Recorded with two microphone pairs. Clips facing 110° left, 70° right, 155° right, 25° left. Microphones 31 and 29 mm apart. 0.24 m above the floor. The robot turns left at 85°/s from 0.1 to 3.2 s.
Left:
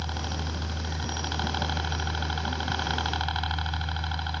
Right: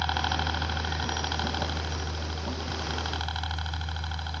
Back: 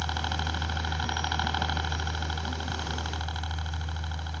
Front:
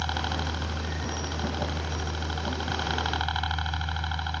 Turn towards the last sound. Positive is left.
turn(degrees=50)